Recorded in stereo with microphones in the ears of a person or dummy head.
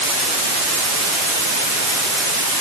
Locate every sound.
Only background noise.